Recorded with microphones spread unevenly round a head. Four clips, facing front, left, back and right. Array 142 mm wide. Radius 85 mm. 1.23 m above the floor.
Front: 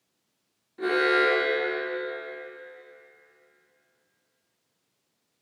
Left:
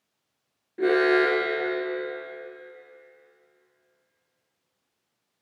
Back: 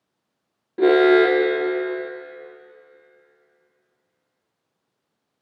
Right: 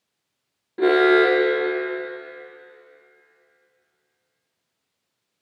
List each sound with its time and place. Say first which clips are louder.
0.8 s an alarm: right 5 dB, back 10 dB; 160° right, 1.6 m